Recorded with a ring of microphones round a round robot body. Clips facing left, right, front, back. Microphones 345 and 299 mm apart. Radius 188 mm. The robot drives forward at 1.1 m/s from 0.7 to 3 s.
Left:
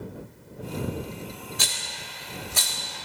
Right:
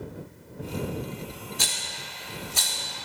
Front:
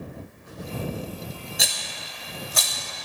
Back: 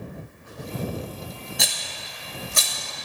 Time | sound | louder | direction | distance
1.6 | a rattle | even, back 1 dB | 90° left | 1.9 m